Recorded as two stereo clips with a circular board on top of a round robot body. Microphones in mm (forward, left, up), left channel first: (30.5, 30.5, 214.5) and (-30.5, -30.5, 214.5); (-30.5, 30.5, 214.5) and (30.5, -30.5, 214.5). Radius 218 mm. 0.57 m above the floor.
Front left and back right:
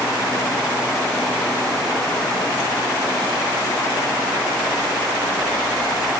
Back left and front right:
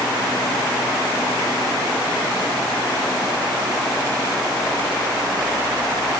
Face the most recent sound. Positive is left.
No sound to turn to.